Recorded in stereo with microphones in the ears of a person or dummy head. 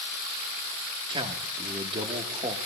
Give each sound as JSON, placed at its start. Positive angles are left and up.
{"t": 1.1, "sound": "a man speaking", "side_deg": -25, "distance_m": 1.3}